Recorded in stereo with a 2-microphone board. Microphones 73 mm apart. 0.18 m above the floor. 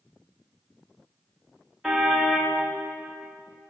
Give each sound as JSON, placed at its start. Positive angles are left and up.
{"t": 1.8, "sound": "a car horn", "side_deg": -5, "distance_m": 8.5}